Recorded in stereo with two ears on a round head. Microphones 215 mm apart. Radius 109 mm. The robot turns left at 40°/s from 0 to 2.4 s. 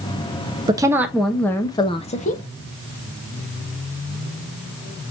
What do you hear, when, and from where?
0.7 s a woman speaking: 160° right, 0.6 m; by 2.4 s 135° left, 0.6 m